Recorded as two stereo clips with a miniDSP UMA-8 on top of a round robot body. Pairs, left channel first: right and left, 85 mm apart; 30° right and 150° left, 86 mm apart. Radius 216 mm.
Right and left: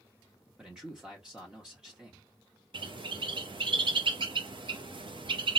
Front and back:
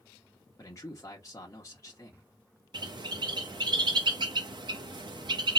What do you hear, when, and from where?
0.6 s a man speaking: 10° left, 1.1 m
2.7 s a bird: 115° left, 0.7 m